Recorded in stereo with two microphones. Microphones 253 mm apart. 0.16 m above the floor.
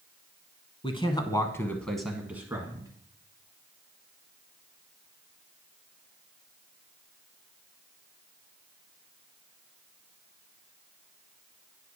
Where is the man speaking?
25° left (ahead or behind), 1.2 m; by 2.9 s 15° right (ahead or behind), 1.3 m.